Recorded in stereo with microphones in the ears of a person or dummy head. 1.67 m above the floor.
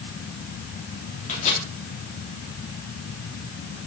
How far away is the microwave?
About 3.5 m.